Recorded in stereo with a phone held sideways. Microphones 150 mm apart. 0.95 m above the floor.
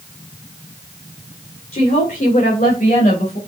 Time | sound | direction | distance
1.7 | a woman speaking | 85° left | 2.5 m